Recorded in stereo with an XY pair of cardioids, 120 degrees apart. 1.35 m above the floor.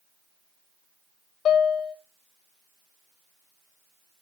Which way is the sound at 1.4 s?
60° left.